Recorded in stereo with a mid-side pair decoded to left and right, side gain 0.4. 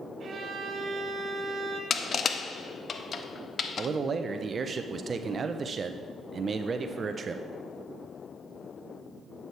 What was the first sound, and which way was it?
A violin, 50° right.